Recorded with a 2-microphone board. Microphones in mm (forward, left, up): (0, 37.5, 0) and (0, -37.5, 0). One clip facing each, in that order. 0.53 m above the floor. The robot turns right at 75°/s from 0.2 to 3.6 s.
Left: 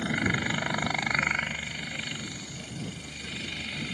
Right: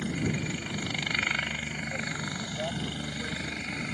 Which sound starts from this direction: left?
A helicopter, at 0.0 s.